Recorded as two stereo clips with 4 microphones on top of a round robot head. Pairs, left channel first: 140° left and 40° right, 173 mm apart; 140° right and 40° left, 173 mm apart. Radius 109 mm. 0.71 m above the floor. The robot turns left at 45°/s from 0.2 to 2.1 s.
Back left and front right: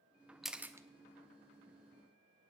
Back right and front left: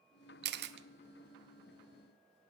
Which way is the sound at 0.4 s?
50° left.